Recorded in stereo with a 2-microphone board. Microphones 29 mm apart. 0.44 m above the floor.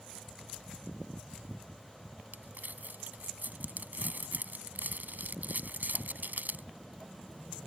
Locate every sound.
2.3 s crumpling: 70° right (ahead or behind)